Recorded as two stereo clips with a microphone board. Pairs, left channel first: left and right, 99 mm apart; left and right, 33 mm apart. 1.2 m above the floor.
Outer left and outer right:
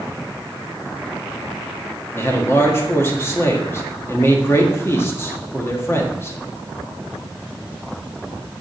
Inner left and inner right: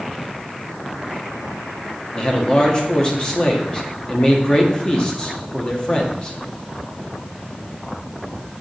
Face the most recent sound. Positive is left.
turn(degrees=25)  # may be behind; listen again after turning